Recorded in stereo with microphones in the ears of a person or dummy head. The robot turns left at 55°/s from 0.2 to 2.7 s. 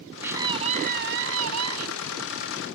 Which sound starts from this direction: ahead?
A scream, at 0.2 s.